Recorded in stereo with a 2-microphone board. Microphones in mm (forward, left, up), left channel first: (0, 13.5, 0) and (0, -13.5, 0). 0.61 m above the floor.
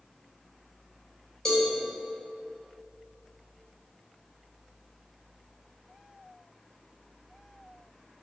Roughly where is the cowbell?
Left.